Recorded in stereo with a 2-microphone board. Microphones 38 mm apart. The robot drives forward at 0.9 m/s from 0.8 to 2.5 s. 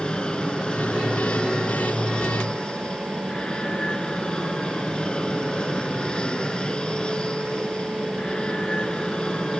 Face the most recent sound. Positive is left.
turn(degrees=25)  # may be behind; listen again after turning